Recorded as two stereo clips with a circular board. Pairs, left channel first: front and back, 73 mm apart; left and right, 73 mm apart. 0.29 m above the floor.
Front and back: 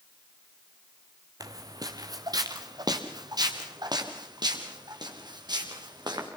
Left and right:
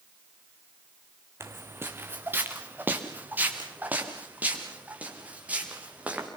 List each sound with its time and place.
1.4 s footsteps: 145° right, 1.6 m; by 6.3 s 160° right, 5.5 m